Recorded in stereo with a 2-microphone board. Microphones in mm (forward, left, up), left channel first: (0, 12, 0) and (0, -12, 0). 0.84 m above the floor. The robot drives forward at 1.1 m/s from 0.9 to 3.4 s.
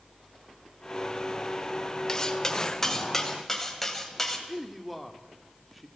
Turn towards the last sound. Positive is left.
turn(degrees=0)  # may be behind; listen again after turning